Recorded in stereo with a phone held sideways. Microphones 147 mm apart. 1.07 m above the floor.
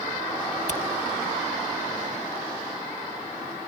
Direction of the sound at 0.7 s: 50° right (ahead or behind).